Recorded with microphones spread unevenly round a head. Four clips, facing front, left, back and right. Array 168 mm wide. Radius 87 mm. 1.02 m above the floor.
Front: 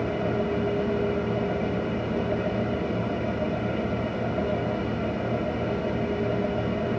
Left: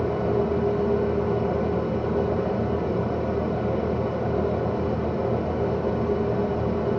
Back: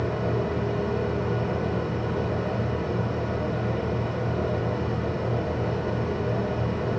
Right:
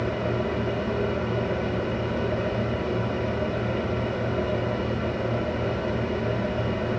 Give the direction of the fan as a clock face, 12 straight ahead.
9 o'clock.